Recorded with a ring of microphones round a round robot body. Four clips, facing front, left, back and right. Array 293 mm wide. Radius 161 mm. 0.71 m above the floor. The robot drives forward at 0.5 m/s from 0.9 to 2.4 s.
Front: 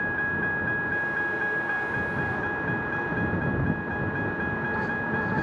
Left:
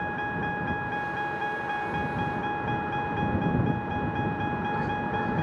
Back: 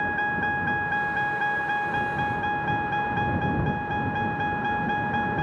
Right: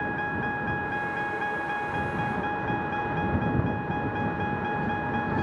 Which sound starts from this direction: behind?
A vehicle, at 0.0 s.